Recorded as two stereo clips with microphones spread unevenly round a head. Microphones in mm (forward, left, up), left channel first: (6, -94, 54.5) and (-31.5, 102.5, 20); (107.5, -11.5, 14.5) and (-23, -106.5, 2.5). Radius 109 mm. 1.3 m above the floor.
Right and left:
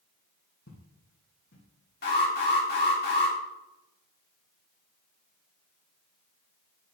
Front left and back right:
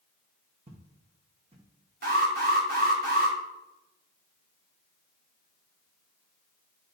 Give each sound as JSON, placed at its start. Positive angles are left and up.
{"t": 0.7, "sound": "footsteps", "azimuth_deg": -95, "distance_m": 2.5}
{"t": 2.0, "sound": "an alarm", "azimuth_deg": -120, "distance_m": 3.0}